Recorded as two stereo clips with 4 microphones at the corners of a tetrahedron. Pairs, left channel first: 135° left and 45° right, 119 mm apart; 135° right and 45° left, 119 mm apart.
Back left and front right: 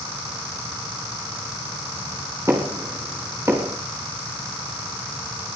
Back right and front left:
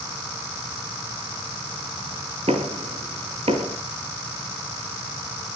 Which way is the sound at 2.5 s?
15° left.